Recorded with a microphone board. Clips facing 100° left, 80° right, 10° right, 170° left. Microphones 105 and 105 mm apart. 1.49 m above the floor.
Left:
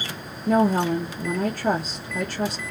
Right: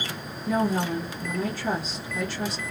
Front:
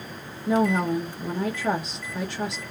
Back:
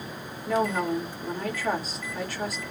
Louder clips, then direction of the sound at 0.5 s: Left 5 dB, front 3 dB; 55° left.